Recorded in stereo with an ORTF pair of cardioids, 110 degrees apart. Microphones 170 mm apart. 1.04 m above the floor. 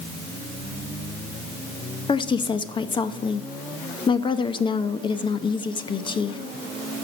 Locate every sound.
2.1 s a woman speaking: 30° left, 0.9 m